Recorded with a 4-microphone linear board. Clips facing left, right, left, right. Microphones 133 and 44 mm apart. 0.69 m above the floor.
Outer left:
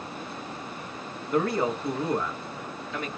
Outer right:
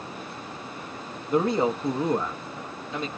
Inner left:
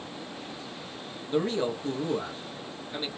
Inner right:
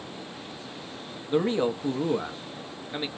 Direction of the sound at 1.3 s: 20° right (ahead or behind).